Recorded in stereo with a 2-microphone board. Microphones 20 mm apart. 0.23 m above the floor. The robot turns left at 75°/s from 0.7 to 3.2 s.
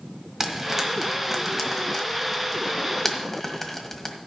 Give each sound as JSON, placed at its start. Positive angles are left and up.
{"t": 0.4, "sound": "frying", "side_deg": -20, "distance_m": 1.5}